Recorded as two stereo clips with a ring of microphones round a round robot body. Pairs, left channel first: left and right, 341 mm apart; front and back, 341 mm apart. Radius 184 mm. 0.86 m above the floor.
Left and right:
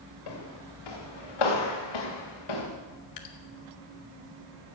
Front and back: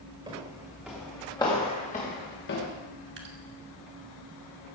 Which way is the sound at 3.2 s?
120° left.